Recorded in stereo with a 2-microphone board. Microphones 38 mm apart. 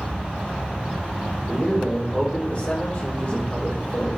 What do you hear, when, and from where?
1.5 s a man speaking: 40° left (ahead or behind), 2.5 m